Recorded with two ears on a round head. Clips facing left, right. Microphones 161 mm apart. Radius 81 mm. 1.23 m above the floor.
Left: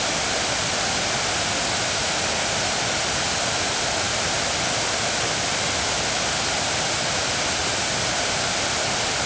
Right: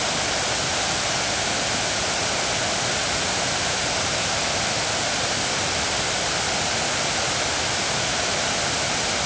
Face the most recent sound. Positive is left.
No sound to turn to.